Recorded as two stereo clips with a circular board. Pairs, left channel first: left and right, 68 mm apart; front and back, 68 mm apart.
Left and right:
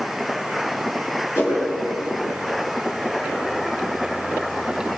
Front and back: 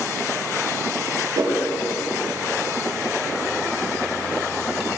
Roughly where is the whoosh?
Behind left.